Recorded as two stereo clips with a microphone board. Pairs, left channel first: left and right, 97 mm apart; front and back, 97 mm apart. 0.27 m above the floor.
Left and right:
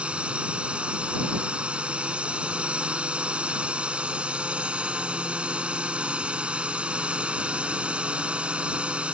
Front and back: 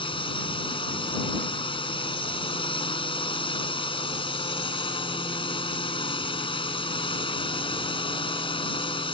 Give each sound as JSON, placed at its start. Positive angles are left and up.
{"t": 0.0, "sound": "a drone", "azimuth_deg": -15}